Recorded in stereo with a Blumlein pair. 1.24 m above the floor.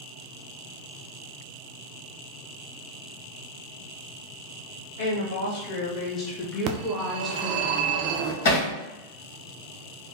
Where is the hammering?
50° left, 1.4 m.